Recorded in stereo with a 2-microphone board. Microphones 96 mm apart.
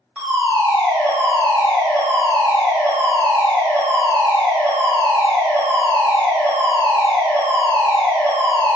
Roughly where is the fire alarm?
Centre.